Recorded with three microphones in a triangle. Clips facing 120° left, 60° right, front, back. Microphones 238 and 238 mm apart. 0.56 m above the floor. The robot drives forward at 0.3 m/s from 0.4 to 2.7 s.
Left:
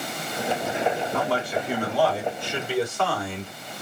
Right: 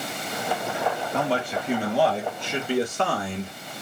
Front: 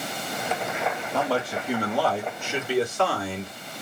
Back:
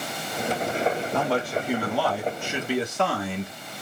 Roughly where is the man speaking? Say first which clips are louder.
Even, back 1 dB; right.